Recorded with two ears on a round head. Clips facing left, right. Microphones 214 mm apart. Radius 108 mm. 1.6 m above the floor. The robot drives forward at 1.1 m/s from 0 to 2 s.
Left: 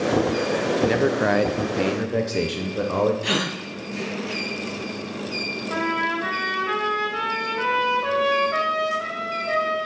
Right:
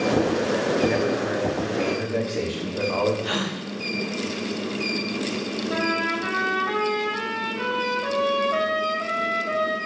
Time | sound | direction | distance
0.8 | a man speaking | 40° left (ahead or behind) | 0.9 m
3.2 | a gasp | 35° left (ahead or behind) | 0.7 m
5.7 | a trumpet | 25° left (ahead or behind) | 3 m